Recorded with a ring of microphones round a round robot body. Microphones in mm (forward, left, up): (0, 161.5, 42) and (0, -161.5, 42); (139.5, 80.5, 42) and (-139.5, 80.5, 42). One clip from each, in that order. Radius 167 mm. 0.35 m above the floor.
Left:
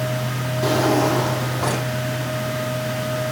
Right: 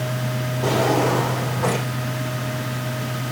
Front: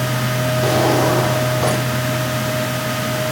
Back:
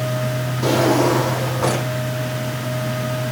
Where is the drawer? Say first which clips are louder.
Left 1 dB, even; 80° left, 9.5 m.